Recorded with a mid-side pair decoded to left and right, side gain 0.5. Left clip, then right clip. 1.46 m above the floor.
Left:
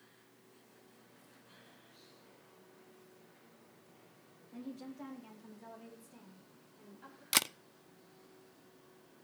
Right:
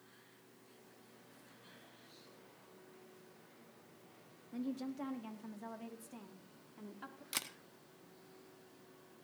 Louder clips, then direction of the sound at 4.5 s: Right 5 dB; 30° right.